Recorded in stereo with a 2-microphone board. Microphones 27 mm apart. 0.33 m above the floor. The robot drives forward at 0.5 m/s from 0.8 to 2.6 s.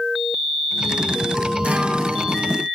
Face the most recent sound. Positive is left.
turn(degrees=-50)  # may be behind; listen again after turning